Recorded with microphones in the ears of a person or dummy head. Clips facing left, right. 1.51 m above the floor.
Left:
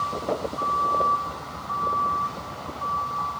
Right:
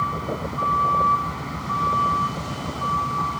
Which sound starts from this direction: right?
A vehicle, at 0.0 s.